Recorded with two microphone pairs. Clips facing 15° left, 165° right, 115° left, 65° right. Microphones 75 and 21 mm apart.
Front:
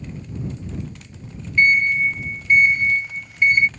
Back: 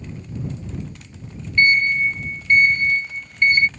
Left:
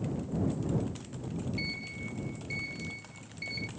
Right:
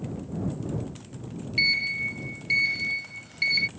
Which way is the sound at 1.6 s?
65° right.